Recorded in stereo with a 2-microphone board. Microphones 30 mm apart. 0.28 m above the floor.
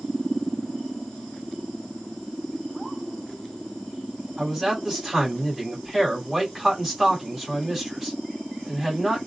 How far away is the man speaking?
About 1.5 m.